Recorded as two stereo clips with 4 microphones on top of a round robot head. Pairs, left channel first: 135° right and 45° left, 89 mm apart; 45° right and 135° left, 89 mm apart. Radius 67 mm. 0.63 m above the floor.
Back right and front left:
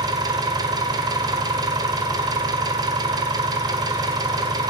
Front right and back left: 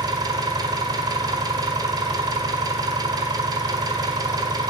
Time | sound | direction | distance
0.0 | an engine running | 90° left | 1.4 m